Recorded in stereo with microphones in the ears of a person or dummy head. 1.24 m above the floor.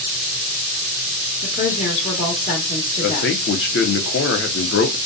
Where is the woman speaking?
35° left (ahead or behind), 1.1 m.